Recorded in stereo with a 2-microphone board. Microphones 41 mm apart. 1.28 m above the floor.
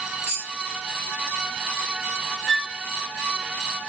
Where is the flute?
15° left (ahead or behind), 0.5 m.